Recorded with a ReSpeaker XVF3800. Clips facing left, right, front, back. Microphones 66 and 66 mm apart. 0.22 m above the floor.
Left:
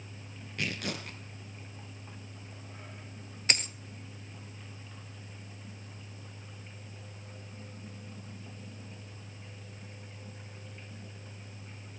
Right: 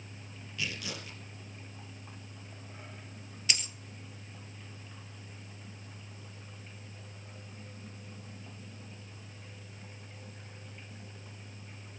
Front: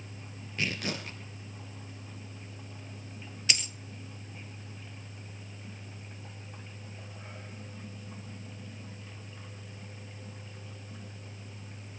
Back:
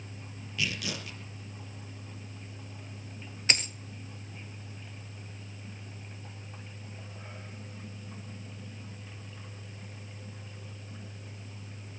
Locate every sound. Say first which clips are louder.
0.6 s tearing paper: left 4 dB, front 1 dB; 50° left, 3.5 m
3.5 s a dropped coin: left 4 dB, back 3 dB; 135° left, 1.3 m